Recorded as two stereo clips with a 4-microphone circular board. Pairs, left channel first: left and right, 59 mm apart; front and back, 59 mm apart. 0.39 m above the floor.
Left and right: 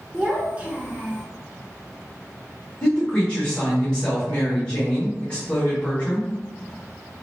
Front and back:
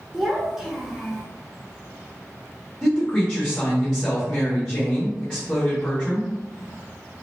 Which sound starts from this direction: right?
A child speaking, at 0.1 s.